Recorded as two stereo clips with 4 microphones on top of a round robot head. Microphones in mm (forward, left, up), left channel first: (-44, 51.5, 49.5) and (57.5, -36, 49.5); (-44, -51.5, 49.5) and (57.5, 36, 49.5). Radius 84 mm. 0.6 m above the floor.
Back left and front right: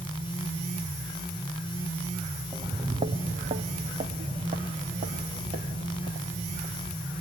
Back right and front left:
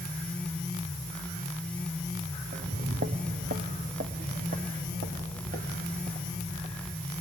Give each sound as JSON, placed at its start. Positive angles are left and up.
{"t": 2.5, "sound": "footsteps", "azimuth_deg": 25, "distance_m": 0.9}